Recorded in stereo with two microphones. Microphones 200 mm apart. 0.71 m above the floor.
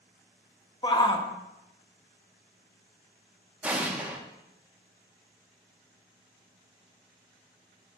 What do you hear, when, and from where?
0.8 s a shout: 20° left (ahead or behind), 0.9 m
3.6 s an explosion: 10° right (ahead or behind), 1.1 m